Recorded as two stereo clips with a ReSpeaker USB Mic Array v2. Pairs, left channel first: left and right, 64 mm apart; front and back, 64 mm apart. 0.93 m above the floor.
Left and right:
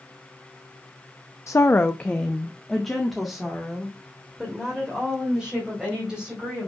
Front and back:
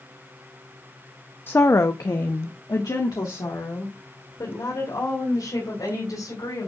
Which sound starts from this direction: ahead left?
A woman speaking, at 1.5 s.